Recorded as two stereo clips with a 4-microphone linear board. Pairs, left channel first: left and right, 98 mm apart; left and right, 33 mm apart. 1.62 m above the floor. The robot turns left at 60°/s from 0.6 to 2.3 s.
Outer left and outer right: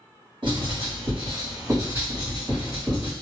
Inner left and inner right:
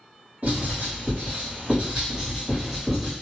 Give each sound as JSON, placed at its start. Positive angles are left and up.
{"t": 0.4, "sound": "writing", "side_deg": -55, "distance_m": 1.7}